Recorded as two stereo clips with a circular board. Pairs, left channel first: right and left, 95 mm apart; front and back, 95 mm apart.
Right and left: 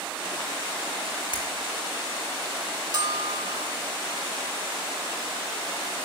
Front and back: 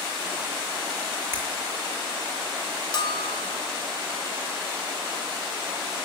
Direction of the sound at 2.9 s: 50° left.